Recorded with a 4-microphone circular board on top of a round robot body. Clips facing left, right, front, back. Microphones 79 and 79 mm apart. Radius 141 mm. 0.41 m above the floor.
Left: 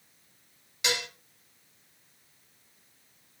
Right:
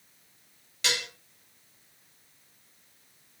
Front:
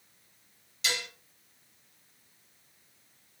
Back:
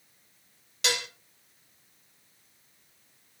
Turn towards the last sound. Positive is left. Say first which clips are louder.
# left 1 dB, back 3 dB
turn(degrees=165)